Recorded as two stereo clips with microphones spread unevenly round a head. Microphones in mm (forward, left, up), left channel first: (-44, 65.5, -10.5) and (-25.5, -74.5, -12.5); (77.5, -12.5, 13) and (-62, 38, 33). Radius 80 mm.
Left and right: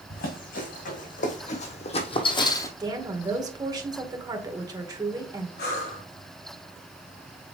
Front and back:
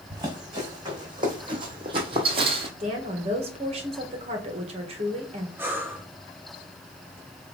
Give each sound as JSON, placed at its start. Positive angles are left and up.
{"t": 0.1, "sound": "running footsteps", "azimuth_deg": 100, "distance_m": 4.0}
{"t": 2.8, "sound": "a woman speaking", "azimuth_deg": -145, "distance_m": 1.8}
{"t": 5.6, "sound": "breathing", "azimuth_deg": 85, "distance_m": 4.0}